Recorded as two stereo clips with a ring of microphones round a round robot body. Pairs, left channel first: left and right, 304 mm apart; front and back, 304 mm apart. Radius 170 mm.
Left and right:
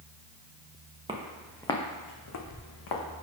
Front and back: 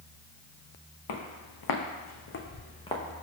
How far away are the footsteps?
About 1.3 m.